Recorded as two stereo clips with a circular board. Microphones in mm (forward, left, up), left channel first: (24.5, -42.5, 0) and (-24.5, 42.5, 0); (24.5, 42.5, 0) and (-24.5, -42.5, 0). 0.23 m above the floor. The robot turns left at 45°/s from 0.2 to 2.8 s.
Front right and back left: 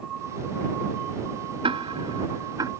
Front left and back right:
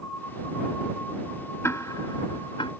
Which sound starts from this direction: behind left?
Ticking, at 1.6 s.